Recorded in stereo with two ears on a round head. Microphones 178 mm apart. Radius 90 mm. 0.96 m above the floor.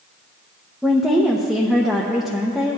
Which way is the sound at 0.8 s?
5° right (ahead or behind).